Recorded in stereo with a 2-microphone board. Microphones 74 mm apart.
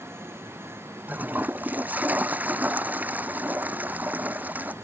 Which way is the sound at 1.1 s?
20° right (ahead or behind).